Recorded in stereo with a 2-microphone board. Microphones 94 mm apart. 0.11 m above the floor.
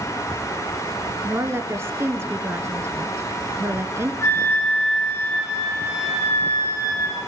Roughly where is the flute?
Left.